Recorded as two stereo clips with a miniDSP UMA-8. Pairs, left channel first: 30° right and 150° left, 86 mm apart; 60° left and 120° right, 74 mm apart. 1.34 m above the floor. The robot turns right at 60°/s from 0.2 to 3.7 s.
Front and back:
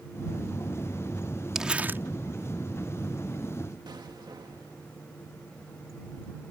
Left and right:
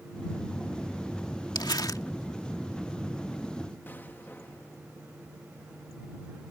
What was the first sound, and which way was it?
Crumpling, 65° left.